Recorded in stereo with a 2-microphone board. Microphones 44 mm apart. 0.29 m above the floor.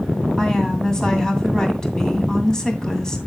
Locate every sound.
0.4 s a woman speaking: 15° left (ahead or behind), 2 m